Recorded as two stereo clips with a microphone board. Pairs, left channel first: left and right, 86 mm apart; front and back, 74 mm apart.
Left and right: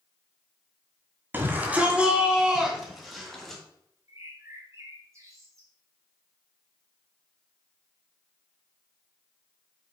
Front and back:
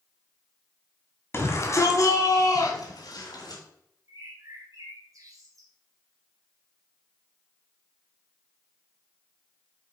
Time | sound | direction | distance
1.3 | a shout | 35° right | 2.0 m
4.1 | a bird | 145° right | 2.5 m